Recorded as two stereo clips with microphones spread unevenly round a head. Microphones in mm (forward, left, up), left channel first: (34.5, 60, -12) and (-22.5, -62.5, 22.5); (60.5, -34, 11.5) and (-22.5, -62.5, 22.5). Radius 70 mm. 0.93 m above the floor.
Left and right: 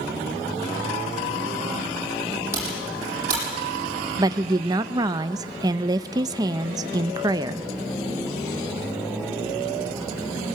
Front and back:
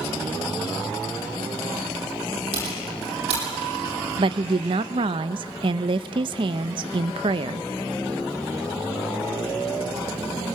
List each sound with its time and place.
2.5 s typing on a keyboard: 175° left, 9 m
4.2 s a woman speaking: 175° left, 0.5 m